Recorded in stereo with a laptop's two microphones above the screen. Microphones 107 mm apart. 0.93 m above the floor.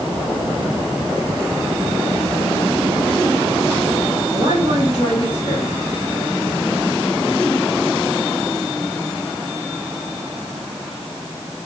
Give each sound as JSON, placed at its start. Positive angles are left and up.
{"t": 4.3, "sound": "a woman speaking", "side_deg": -35, "distance_m": 5.0}